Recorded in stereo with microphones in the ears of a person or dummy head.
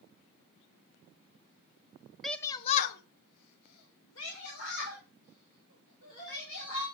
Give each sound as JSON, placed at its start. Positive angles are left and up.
{"t": 2.2, "sound": "a shout", "side_deg": 0, "distance_m": 0.7}